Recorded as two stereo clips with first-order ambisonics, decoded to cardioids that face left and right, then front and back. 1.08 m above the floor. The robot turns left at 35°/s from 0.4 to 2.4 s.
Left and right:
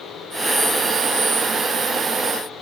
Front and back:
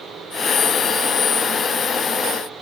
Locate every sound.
Only background noise.